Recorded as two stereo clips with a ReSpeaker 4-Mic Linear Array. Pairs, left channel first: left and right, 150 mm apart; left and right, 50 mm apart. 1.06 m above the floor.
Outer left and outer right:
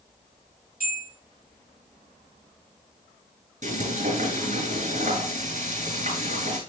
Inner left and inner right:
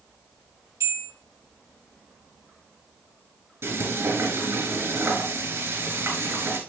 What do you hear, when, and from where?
0.8 s a bell: 85° right, 7 m
3.6 s frying: 60° right (ahead or behind), 8 m